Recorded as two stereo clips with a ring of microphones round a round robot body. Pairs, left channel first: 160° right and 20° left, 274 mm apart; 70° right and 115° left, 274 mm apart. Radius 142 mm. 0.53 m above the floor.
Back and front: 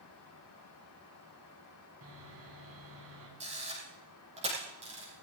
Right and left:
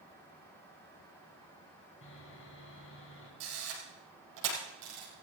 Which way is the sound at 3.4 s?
90° left.